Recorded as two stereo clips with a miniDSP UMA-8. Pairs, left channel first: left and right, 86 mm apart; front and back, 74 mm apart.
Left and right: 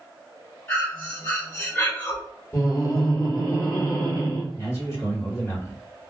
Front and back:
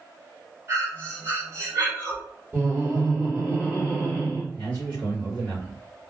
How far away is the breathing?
About 1.6 m.